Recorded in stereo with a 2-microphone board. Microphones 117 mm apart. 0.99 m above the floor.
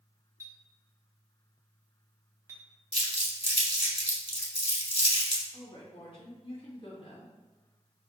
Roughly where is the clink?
Right.